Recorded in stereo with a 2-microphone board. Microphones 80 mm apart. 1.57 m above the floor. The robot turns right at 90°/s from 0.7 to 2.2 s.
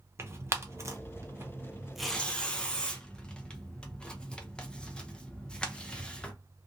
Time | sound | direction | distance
0.2 | tearing paper | 35° right (ahead or behind) | 0.5 m